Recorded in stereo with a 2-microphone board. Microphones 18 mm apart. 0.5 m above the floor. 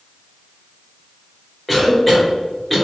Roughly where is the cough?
Centre.